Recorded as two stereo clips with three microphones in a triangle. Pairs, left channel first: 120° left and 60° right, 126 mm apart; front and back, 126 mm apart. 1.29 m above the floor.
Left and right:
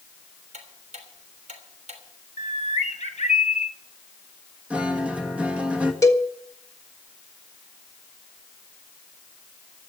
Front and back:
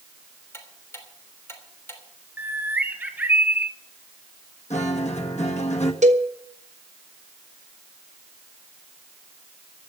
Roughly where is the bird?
Left.